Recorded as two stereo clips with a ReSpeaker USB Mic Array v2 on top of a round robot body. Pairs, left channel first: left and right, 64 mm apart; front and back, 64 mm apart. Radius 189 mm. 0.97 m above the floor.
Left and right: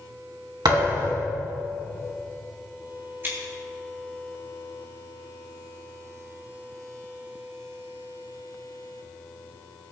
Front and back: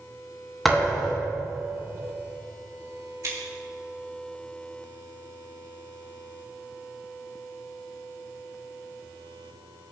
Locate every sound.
0.7 s a thud: 90° right, 2.5 m
3.2 s scissors: 145° right, 3 m